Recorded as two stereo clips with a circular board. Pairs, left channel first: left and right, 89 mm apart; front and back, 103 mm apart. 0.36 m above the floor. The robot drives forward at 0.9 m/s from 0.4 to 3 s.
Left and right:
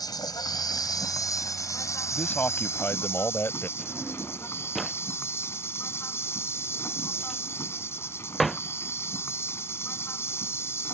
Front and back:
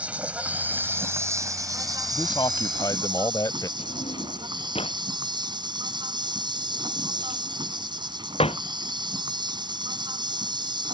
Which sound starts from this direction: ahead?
A drawer, at 3.8 s.